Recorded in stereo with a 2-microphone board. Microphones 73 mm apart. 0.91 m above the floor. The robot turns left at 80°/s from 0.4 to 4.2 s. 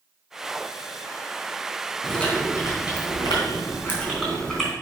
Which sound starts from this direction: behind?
Chewing, at 2.0 s.